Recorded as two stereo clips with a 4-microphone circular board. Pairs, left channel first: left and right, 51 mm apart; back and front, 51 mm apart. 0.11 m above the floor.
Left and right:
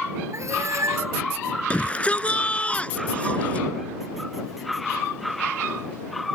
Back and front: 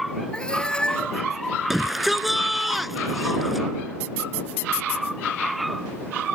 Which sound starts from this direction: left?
A shout, at 1.7 s.